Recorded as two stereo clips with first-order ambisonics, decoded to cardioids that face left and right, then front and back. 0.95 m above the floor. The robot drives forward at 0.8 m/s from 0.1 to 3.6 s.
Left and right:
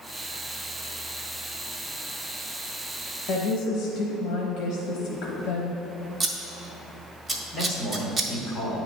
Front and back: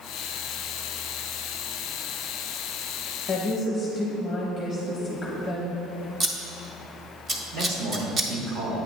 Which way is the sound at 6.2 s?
155° right.